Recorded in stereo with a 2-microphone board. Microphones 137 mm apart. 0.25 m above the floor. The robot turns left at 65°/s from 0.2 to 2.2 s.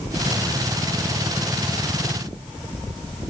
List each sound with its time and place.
Only background noise.